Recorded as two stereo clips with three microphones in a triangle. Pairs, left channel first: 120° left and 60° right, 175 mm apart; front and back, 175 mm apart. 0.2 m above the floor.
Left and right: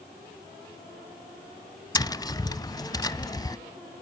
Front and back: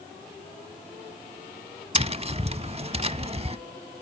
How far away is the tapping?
About 0.5 m.